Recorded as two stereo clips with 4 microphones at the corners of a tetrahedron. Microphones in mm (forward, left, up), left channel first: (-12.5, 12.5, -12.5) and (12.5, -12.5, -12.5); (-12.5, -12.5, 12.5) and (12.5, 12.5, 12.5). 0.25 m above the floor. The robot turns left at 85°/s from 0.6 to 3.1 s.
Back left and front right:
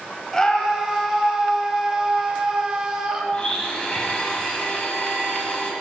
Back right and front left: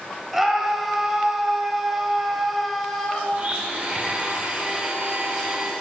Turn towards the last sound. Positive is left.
turn(degrees=85)